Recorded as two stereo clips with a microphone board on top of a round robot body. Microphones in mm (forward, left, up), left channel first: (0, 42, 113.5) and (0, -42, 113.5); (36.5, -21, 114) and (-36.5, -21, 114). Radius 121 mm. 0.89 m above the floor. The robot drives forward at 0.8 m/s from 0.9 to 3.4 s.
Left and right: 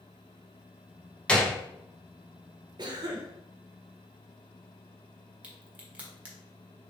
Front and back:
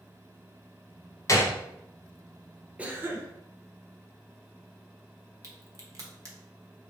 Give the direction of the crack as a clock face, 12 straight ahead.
5 o'clock.